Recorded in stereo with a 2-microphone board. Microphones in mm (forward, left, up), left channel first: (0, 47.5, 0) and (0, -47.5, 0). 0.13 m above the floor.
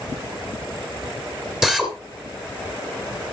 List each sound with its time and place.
1.6 s a drill: 5° right (ahead or behind), 2.5 m